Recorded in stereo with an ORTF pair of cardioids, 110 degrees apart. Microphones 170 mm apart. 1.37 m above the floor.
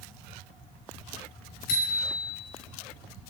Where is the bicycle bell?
65° left, 5 m.